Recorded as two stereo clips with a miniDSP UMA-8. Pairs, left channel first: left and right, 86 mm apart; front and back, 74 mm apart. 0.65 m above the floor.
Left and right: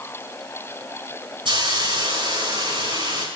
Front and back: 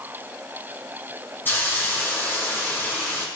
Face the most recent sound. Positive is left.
turn(degrees=-65)